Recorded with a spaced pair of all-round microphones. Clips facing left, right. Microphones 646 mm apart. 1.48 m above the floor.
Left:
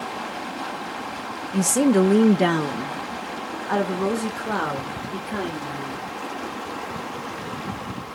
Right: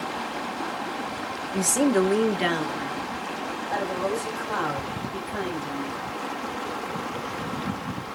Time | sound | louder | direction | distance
1.5 | a woman speaking | left 4 dB | 40° left (ahead or behind) | 1.1 m